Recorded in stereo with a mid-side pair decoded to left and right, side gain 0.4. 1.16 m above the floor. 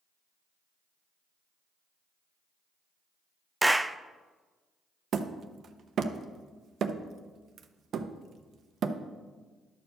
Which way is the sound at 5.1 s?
60° right.